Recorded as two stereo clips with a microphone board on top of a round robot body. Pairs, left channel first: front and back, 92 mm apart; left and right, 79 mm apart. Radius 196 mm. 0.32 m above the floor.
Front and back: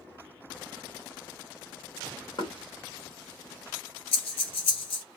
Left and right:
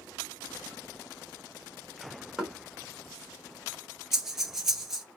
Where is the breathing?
5° right, 0.7 m.